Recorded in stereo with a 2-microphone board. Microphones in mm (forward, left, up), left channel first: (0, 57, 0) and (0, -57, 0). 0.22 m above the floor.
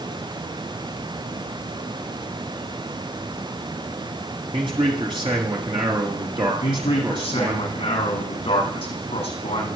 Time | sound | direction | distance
4.5 | a man speaking | 45° right (ahead or behind) | 3.5 m
6.6 | a man speaking | 60° left (ahead or behind) | 9.5 m